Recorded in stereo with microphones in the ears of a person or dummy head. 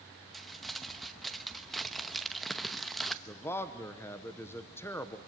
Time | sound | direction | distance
0.3 | crumpling | centre (ahead or behind) | 0.9 m
3.3 | a man speaking | 10° left (ahead or behind) | 0.9 m